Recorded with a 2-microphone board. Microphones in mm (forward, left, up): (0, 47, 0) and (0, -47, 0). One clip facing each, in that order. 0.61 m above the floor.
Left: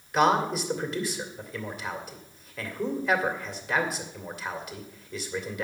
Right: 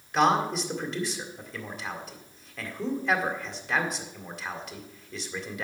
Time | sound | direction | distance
0.1 | a man speaking | centre (ahead or behind) | 2 m